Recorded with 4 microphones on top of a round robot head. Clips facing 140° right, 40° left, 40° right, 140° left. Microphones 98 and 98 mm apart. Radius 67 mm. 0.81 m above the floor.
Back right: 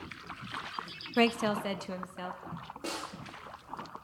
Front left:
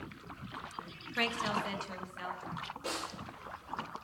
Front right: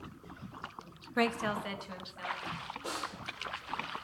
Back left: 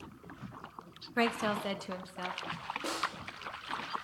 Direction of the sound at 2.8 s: 175° left.